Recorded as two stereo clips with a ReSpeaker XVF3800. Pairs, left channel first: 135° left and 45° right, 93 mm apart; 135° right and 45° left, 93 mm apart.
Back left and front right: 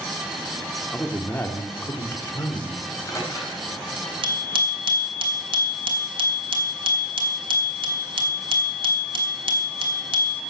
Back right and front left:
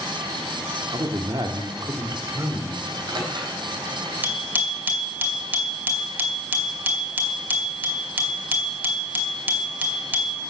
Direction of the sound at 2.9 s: 80° left.